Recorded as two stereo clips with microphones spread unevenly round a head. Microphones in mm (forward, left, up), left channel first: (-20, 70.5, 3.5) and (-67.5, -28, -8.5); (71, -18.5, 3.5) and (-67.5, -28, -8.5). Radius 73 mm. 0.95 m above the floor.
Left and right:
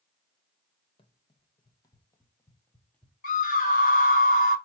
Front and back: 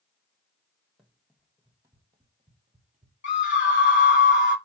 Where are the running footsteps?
95° left, 1.7 m; by 3.1 s 140° left, 1.7 m.